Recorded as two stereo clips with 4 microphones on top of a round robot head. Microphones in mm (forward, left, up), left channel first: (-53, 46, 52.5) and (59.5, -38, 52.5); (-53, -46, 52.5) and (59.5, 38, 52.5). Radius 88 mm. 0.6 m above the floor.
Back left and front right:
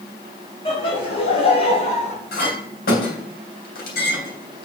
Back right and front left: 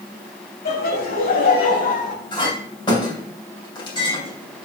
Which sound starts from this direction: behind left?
A clink, at 2.3 s.